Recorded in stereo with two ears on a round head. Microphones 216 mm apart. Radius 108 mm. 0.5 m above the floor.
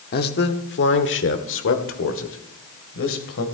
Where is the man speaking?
40° left (ahead or behind), 1.1 m; by 3.4 s 60° left (ahead or behind), 2.5 m.